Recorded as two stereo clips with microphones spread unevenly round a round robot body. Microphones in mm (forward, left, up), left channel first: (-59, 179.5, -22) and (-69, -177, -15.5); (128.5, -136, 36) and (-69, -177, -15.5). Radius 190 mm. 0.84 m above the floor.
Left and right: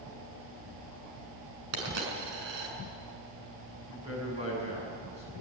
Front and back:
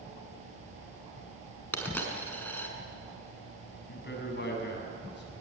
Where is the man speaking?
15° right, 7.5 m.